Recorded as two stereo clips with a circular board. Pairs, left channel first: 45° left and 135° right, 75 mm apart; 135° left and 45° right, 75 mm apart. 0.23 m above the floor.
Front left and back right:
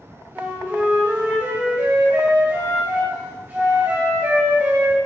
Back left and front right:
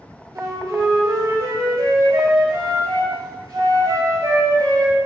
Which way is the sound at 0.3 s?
70° right.